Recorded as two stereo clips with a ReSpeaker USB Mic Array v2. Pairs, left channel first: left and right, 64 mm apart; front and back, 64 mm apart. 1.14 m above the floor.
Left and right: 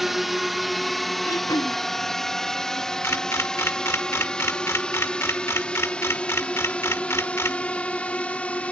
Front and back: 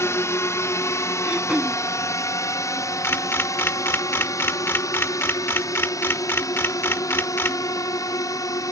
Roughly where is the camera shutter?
Ahead left.